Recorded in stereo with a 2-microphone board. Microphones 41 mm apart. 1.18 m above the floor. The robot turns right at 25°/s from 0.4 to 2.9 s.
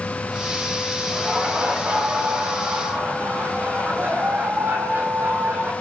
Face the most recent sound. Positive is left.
turn(degrees=-115)